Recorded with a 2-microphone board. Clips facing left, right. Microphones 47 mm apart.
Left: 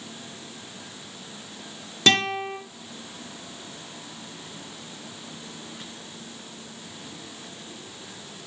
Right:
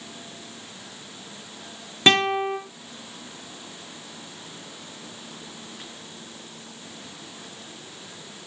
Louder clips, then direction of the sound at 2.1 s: Right 3 dB; 25° right (ahead or behind).